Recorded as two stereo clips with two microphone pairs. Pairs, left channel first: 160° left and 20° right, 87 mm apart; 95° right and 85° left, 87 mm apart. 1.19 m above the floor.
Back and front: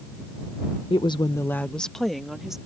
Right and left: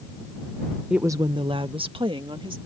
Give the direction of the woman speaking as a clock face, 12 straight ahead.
6 o'clock.